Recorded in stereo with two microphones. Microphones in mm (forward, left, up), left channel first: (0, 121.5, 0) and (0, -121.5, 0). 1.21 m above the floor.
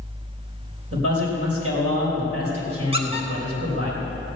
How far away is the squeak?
About 1.6 m.